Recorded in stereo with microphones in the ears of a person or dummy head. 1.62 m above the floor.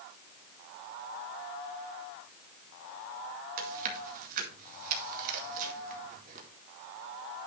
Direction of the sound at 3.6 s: 50° right (ahead or behind).